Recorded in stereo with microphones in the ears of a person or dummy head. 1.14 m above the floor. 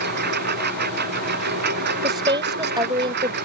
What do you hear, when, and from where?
0.0 s a lawn mower: 55° right (ahead or behind)
2.0 s a woman speaking: 25° right (ahead or behind)